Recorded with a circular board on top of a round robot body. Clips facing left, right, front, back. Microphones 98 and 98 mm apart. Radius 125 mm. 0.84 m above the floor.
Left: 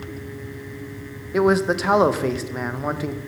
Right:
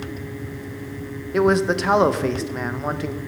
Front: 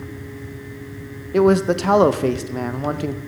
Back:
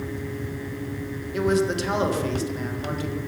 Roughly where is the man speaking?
Ahead.